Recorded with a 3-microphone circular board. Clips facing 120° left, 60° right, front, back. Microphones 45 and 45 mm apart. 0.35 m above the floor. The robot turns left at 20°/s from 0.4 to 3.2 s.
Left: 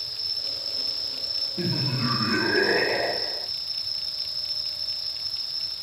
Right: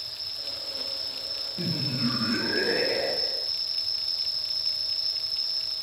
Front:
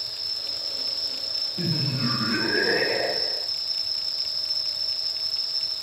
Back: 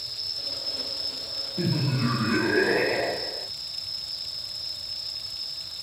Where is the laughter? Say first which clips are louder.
Left 2 dB, back 2 dB; 95° left, 1.0 m; by 3.5 s 65° left, 1.0 m.